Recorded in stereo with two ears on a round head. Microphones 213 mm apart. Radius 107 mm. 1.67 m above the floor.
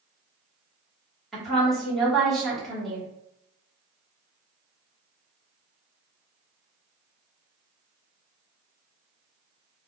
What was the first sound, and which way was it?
A woman speaking, centre (ahead or behind).